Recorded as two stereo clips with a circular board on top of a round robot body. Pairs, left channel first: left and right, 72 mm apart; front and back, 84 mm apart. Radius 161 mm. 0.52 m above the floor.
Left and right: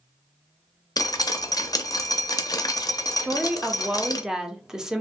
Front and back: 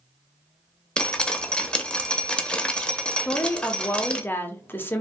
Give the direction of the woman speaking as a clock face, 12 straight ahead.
1 o'clock.